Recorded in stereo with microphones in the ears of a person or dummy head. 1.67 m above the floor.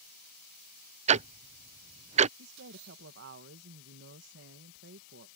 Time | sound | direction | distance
1.1 | ticking | 35° right (ahead or behind) | ?
2.4 | a woman speaking | 65° right (ahead or behind) | ?